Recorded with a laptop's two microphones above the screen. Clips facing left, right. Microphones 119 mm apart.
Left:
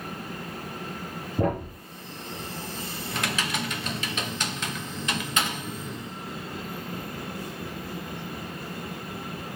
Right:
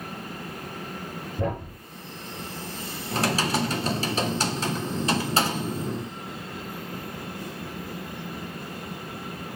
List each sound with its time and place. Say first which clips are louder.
1.4 s a thud: left 4 dB; 45° left (ahead or behind), 3.5 m
3.1 s typing on a keyboard: right 6 dB; 35° right (ahead or behind), 0.8 m